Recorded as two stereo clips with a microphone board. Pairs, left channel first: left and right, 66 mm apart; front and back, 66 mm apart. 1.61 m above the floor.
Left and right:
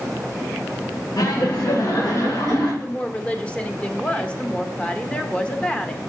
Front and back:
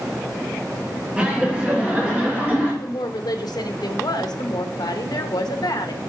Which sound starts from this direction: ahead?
A woman speaking, at 2.8 s.